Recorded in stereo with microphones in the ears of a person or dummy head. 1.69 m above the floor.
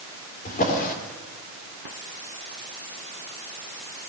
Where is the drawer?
45° left (ahead or behind), 3.5 m.